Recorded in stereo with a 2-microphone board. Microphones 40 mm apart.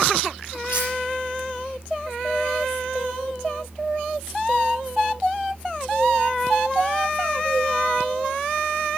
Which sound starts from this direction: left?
Cutlery clinking, at 0.7 s.